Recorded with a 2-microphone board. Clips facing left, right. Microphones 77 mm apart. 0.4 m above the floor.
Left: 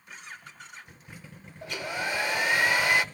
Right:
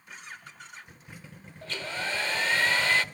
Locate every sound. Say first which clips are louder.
1.6 s a hair dryer: left 2 dB; 15° left (ahead or behind), 0.8 m